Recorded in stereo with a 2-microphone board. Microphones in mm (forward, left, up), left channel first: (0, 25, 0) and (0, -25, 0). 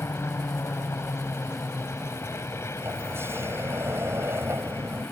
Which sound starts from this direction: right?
A sliding door, at 2.8 s.